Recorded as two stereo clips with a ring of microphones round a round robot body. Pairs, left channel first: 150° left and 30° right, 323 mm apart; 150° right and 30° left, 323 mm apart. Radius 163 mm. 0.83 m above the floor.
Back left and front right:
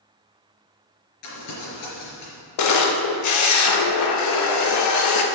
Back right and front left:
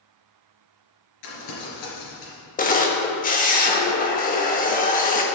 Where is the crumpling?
170° right, 3.5 m.